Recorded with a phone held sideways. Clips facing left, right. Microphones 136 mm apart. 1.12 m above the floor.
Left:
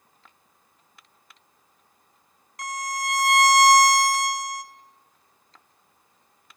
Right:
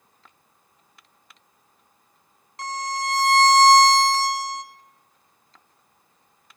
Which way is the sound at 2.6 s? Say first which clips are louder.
Right 2 dB; 30° right (ahead or behind).